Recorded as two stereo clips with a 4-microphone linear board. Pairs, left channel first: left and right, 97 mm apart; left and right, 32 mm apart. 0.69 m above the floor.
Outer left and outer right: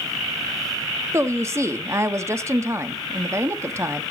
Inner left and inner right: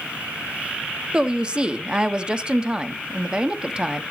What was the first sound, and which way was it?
A woman speaking, 30° right (ahead or behind).